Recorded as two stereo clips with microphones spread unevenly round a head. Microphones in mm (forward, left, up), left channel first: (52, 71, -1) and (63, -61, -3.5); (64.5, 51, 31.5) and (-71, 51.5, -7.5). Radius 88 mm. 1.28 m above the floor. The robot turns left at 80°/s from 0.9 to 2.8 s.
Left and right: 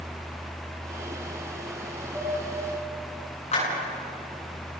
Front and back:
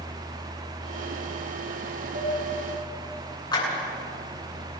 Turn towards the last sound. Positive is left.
turn(degrees=55)